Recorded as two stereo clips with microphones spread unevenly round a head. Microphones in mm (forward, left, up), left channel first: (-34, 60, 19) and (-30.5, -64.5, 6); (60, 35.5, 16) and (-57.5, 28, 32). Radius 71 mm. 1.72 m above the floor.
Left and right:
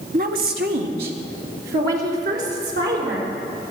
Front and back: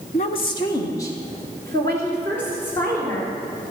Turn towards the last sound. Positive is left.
turn(degrees=-75)